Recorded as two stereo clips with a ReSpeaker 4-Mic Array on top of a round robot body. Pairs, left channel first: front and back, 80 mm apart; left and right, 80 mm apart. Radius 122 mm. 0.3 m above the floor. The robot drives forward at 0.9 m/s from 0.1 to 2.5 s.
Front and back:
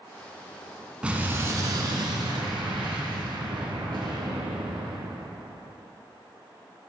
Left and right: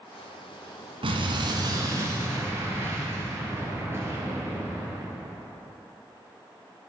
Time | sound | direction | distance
1.0 | an explosion | 100° right | 0.9 m